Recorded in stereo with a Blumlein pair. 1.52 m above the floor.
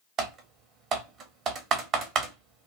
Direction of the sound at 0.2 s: 30° right.